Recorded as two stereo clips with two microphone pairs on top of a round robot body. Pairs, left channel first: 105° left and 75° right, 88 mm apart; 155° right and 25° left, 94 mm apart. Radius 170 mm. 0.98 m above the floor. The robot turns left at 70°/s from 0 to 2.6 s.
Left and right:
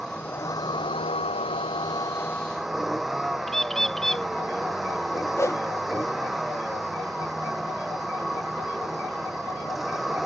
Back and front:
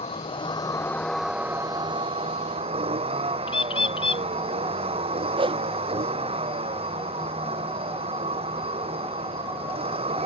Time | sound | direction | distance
0.0 | a vehicle | 165° right | ?
3.5 | a bird | 165° right | ?
5.4 | a whoosh | 45° left | ?